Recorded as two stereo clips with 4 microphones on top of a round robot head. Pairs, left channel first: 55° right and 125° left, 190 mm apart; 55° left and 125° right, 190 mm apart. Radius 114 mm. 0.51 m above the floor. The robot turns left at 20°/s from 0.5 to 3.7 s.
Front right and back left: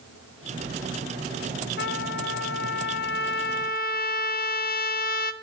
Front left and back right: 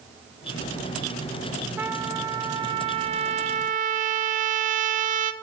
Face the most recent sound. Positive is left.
turn(degrees=-85)